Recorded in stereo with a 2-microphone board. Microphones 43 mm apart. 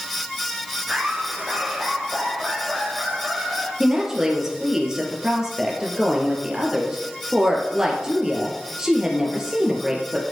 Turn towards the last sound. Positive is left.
turn(degrees=-10)  # may be behind; listen again after turning